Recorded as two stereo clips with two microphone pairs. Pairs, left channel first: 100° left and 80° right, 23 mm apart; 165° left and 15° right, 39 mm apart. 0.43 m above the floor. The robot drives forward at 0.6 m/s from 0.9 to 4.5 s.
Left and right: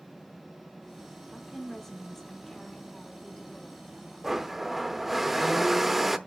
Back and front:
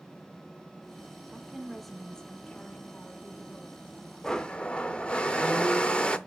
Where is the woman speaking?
20° left, 0.8 m; by 3.9 s 175° left, 1.5 m.